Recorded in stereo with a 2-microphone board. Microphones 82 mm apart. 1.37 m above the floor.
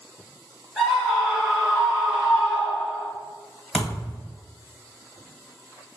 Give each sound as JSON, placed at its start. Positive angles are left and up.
{"t": 0.8, "sound": "a scream", "side_deg": 10, "distance_m": 1.8}
{"t": 3.7, "sound": "a thud", "side_deg": 0, "distance_m": 1.7}